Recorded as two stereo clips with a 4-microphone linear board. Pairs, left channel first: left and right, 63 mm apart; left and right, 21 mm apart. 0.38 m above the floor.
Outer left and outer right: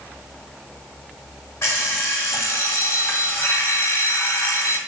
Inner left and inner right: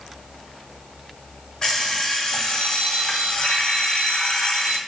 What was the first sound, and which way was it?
An alarm clock, 45° left (ahead or behind).